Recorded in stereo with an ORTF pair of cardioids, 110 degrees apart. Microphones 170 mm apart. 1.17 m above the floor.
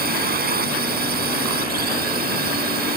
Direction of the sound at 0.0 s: 65° right.